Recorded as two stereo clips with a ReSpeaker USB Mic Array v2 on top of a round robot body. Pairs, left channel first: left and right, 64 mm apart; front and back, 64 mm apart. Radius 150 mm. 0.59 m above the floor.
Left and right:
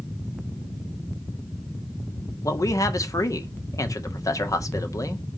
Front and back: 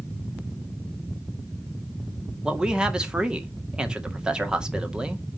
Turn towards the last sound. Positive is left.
turn(degrees=105)